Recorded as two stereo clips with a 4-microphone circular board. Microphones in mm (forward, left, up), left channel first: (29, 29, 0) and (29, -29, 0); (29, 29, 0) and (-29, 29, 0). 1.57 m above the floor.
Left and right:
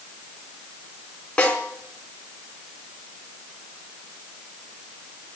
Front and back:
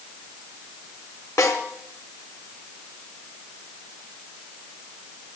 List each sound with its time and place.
1.4 s a snare drum: 20° left, 4 m